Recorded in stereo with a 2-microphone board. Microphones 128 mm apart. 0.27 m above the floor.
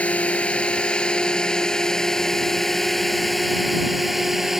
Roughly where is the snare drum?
I don't hear a snare drum.